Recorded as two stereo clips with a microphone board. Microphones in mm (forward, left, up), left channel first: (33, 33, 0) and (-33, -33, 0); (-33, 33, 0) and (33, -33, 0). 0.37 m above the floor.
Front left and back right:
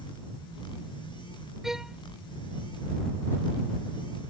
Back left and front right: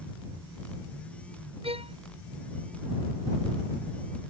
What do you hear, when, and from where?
1.6 s a violin: 50° right